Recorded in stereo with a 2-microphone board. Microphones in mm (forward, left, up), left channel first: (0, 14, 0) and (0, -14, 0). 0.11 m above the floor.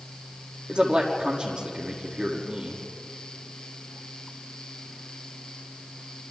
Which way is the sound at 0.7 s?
30° right (ahead or behind).